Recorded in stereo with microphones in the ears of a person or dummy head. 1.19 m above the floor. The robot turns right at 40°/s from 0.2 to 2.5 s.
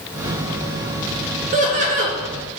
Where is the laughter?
35° right (ahead or behind), 0.7 m.